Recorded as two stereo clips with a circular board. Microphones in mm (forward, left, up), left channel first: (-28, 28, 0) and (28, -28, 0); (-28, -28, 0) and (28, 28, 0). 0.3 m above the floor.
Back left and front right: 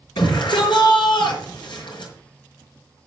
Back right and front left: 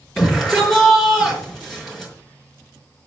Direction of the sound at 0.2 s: 140° left.